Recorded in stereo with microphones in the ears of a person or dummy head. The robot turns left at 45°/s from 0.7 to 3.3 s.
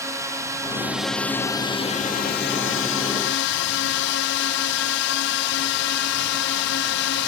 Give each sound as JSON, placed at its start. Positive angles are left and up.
{"t": 0.0, "sound": "a drone", "azimuth_deg": -165}